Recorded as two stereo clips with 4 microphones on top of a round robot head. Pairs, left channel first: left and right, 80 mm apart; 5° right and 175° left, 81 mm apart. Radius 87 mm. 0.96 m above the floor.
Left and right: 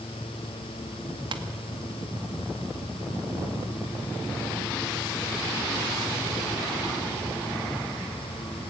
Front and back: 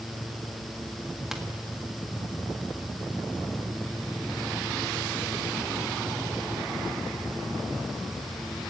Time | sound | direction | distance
1.3 | tapping | 100° right | 1.7 m